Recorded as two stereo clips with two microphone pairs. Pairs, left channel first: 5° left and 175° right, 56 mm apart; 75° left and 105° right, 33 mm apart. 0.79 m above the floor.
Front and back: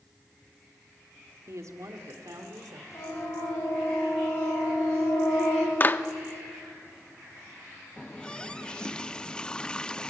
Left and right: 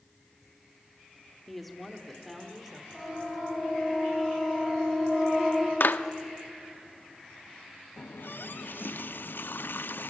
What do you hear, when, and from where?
1.5 s a woman speaking: 160° left, 2 m; by 2.8 s 165° left, 3.5 m
2.9 s a siren: 5° left, 8.5 m; by 5.7 s 10° left, 10 m
5.8 s a clap: 60° left, 0.7 m
8.0 s a running tap: 75° left, 0.5 m